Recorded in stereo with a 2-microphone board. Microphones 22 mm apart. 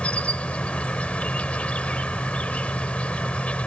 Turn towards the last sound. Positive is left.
turn(degrees=70)  # may be behind; listen again after turning